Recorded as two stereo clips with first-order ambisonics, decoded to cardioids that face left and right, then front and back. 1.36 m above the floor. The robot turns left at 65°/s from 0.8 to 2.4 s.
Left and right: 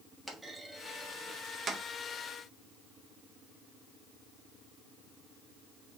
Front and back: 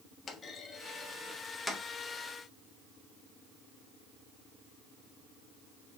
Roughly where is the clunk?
Ahead.